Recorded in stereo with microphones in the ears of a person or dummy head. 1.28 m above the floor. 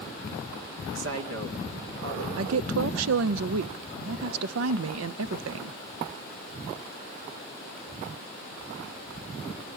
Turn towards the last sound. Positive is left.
turn(degrees=-75)  # may be behind; listen again after turning